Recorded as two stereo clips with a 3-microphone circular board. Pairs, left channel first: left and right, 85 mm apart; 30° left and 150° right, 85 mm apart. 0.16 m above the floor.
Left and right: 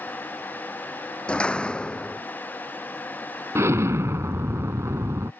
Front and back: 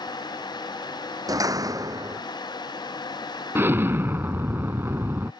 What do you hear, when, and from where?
1.3 s a door slam: 170° left
3.5 s an explosion: 110° right